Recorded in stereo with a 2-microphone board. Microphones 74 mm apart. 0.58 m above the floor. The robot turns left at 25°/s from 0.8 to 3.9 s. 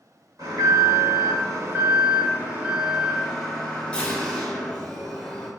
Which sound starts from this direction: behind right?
An alarm, at 0.4 s.